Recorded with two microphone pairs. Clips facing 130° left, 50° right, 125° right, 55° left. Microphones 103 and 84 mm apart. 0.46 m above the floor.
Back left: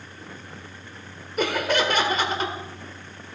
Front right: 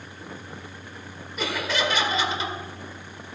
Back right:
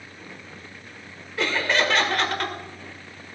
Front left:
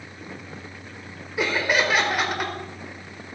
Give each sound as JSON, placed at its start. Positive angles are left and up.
{"t": 1.4, "sound": "laughter", "azimuth_deg": 130, "distance_m": 1.9}